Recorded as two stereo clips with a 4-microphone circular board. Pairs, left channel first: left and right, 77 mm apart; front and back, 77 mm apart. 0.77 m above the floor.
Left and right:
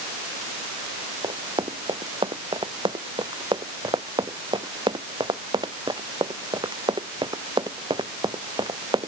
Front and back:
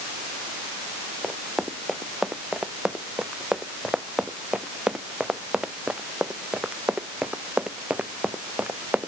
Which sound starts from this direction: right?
Running footsteps, at 1.2 s.